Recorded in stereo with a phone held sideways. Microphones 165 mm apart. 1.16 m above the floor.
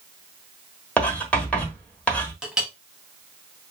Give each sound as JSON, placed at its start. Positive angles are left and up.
{"t": 1.0, "sound": "writing", "side_deg": 5, "distance_m": 1.2}
{"t": 2.4, "sound": "a clink", "side_deg": -5, "distance_m": 0.7}